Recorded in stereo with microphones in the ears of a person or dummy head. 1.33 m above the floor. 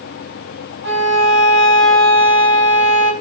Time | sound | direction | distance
0.8 | a violin | 75° right (ahead or behind) | 1.4 m